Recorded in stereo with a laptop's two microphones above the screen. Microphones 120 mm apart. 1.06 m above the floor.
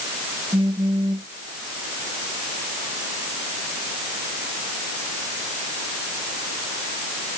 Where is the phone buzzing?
45° right (ahead or behind).